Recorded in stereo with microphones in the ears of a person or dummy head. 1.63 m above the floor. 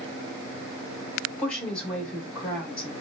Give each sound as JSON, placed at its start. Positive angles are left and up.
{"t": 1.4, "sound": "a woman speaking", "side_deg": 10, "distance_m": 1.2}